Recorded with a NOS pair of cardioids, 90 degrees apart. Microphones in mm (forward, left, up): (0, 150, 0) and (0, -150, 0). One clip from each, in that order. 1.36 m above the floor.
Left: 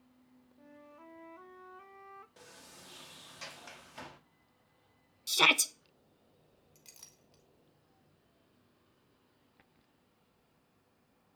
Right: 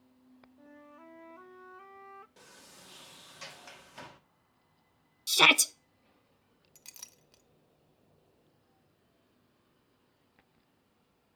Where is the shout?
20° right, 0.6 m.